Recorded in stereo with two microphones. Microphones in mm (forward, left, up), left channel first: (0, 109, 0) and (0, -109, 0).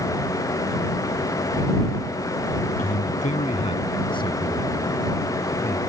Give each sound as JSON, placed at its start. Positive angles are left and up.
{"t": 2.8, "sound": "a man speaking", "side_deg": 45}